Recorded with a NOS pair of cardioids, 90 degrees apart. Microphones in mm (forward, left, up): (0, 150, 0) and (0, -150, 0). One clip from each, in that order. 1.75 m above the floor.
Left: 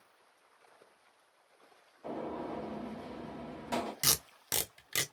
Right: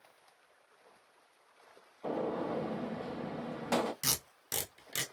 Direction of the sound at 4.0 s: 25° left.